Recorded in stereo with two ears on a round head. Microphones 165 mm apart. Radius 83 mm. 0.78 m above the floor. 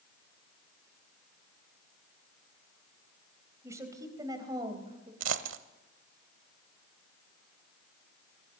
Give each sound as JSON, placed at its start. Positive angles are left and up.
{"t": 3.6, "sound": "a woman speaking", "side_deg": -15, "distance_m": 4.0}
{"t": 5.2, "sound": "a dropped coin", "side_deg": -75, "distance_m": 1.3}